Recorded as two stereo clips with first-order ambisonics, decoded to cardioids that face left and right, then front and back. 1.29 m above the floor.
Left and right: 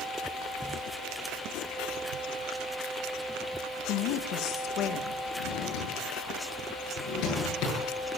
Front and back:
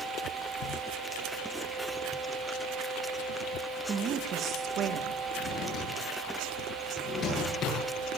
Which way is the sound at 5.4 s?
55° left.